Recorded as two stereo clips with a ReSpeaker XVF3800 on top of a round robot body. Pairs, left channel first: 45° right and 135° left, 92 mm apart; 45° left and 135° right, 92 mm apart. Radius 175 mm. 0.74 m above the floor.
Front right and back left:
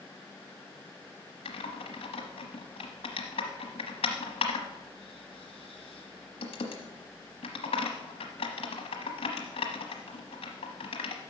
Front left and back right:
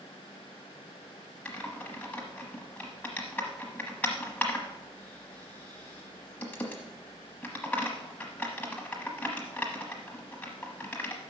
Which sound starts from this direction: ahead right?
Typing on a keyboard, at 1.4 s.